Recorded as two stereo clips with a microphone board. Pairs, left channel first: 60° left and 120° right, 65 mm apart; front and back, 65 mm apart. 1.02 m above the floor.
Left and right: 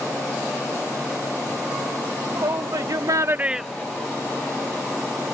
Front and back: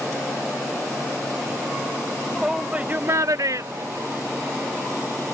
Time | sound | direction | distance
2.4 | a shout | 95° right | ?